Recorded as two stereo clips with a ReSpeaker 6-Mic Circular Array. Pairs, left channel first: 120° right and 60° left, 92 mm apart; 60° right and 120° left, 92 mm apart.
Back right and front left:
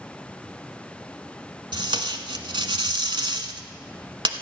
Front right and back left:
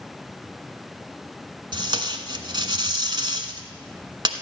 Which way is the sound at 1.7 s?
85° left.